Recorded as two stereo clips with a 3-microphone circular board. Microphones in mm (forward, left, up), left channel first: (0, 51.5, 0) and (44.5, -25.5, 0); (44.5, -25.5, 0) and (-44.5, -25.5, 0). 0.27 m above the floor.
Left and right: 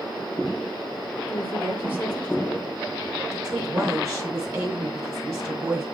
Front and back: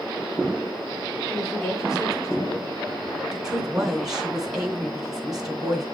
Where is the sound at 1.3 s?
55° left, 3.5 m.